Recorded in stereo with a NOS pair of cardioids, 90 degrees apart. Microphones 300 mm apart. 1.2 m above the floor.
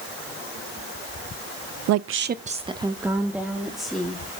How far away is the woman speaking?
About 0.5 m.